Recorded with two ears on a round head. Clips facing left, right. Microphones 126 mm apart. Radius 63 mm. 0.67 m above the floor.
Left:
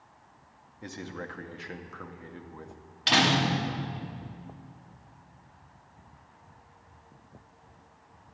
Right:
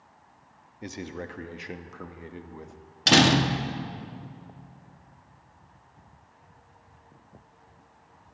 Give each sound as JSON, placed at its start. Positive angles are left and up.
{"t": 0.8, "sound": "a man speaking", "side_deg": -20, "distance_m": 0.6}
{"t": 3.1, "sound": "a door slam", "side_deg": -55, "distance_m": 0.8}